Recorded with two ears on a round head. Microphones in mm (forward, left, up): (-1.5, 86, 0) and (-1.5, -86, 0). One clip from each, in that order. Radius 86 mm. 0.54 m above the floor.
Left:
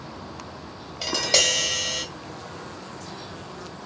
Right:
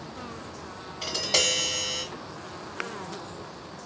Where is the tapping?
35° left (ahead or behind), 1.8 m.